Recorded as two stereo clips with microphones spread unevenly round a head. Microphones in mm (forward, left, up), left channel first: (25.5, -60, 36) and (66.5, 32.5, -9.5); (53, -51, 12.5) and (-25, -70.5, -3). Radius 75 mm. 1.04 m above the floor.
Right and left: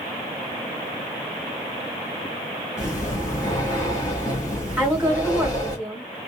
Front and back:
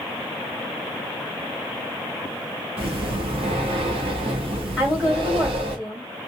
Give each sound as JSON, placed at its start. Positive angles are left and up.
{"t": 2.8, "sound": "breathing", "azimuth_deg": -175, "distance_m": 0.7}
{"t": 4.8, "sound": "a woman speaking", "azimuth_deg": 125, "distance_m": 1.3}